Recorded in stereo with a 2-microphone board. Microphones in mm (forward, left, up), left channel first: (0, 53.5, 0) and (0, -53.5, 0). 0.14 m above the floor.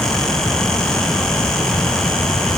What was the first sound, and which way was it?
Only background noise.